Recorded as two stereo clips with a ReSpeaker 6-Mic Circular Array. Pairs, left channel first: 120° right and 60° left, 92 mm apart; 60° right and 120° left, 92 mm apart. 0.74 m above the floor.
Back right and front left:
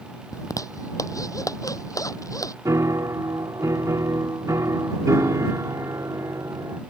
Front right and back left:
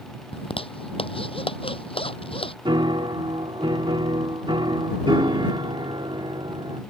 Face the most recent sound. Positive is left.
turn(degrees=110)